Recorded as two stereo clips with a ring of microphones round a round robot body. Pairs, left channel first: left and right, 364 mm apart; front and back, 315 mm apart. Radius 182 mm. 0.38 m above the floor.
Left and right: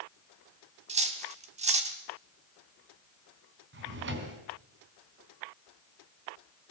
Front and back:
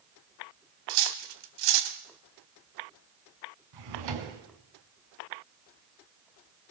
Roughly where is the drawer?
Behind right.